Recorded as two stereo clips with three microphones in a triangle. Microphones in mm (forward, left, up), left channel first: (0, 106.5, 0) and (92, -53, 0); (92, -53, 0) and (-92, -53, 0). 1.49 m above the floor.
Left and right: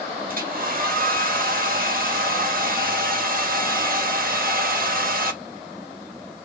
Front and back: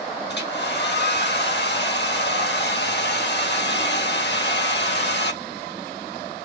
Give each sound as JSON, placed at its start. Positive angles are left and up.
{"t": 0.3, "sound": "a hair dryer", "azimuth_deg": -20, "distance_m": 1.3}